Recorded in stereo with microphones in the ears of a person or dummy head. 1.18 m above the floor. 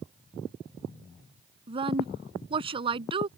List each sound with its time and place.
1.7 s a woman speaking: 30° right (ahead or behind)